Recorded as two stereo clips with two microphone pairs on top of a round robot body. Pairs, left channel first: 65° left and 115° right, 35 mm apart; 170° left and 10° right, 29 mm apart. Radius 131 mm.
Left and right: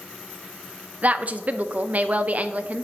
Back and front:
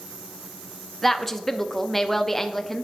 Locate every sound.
1.0 s a woman speaking: 100° right, 0.8 m